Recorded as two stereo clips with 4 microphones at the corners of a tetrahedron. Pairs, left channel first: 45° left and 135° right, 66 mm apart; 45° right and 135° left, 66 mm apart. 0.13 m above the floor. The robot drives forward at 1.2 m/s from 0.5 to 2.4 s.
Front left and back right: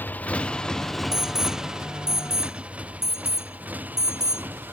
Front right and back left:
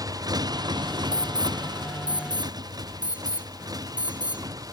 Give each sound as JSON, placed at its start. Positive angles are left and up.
{"t": 0.0, "sound": "a motorcycle", "azimuth_deg": 105}
{"t": 1.1, "sound": "an alarm", "azimuth_deg": -150}